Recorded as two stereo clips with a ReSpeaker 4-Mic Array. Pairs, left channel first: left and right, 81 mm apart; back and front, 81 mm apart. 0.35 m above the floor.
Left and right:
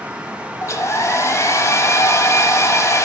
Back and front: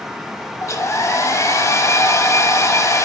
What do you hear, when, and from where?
0.6 s a hair dryer: 135° left, 1.0 m